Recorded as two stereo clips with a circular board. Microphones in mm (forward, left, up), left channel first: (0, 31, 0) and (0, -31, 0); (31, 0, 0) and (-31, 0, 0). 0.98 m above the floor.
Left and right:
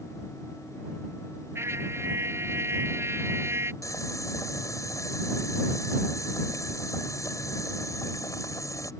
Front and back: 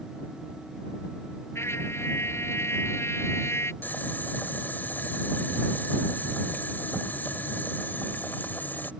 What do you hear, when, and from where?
1.6 s a trumpet: 45° right
3.8 s boiling: 60° left